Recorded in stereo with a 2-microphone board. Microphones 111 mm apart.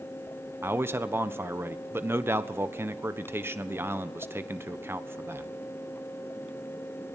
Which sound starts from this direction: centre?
A man speaking, at 0.6 s.